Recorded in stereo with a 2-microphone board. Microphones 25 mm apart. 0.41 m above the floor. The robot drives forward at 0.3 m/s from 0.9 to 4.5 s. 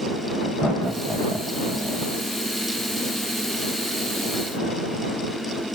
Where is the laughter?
20° right (ahead or behind), 2.0 m; by 2.0 s 15° right (ahead or behind), 2.5 m.